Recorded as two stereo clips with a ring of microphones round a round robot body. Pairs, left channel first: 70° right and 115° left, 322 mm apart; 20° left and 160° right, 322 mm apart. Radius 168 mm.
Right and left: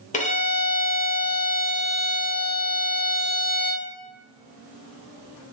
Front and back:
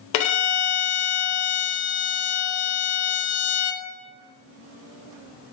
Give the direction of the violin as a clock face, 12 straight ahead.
12 o'clock.